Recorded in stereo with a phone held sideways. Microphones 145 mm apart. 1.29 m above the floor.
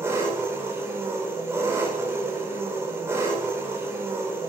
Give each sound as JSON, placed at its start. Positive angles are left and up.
{"t": 0.0, "sound": "an engine running", "side_deg": -15, "distance_m": 5.0}